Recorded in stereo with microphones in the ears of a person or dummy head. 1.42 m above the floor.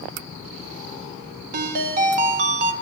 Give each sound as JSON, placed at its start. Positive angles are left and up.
{"t": 1.5, "sound": "a ringtone", "side_deg": -50, "distance_m": 1.2}